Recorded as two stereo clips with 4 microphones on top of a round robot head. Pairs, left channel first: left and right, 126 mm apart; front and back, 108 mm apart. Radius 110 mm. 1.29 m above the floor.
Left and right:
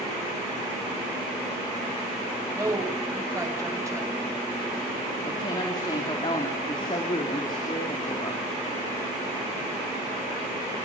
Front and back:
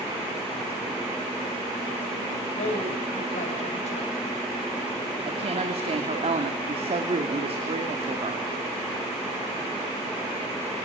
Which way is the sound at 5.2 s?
155° left.